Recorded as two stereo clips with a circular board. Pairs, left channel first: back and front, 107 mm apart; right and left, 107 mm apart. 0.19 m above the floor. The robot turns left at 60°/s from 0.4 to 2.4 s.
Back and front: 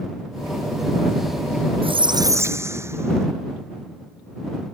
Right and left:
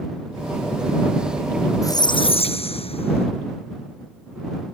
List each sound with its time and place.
1.8 s a squeak: 30° right; by 3.3 s 65° right